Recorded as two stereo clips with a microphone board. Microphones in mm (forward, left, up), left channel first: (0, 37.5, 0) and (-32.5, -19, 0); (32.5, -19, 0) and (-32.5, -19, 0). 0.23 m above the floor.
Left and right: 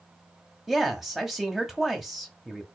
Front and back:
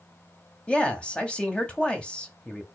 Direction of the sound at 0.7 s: 40° right.